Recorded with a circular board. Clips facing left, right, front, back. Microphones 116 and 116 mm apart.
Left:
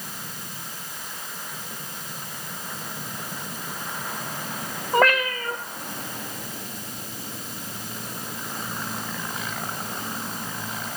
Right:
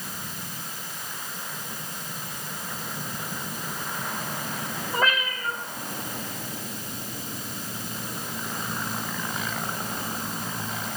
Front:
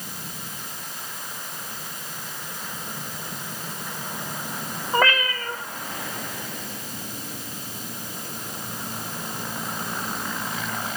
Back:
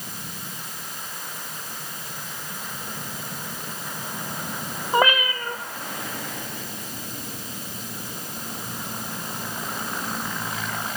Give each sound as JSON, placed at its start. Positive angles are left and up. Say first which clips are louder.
{"t": 4.9, "sound": "a cat meowing", "louder": "left 7 dB, back 2 dB", "azimuth_deg": 105, "distance_m": 1.1}